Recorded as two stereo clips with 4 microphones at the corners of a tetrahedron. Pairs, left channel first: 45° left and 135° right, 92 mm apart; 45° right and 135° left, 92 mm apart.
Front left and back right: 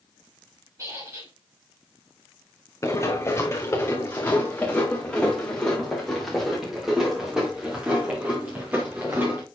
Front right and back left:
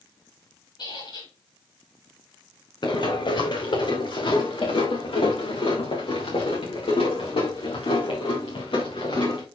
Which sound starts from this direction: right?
A squeak, at 0.8 s.